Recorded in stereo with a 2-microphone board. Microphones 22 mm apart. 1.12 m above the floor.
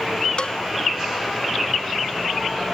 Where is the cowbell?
55° left (ahead or behind).